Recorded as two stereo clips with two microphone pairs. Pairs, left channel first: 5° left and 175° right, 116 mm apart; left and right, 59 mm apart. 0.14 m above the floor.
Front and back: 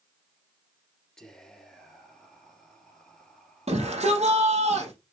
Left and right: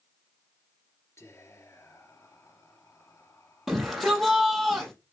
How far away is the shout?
About 4.5 m.